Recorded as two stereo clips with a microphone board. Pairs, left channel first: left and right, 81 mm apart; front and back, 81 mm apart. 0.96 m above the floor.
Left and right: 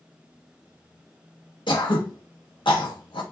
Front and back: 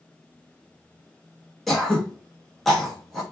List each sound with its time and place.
1.7 s throat clearing: 85° left, 0.8 m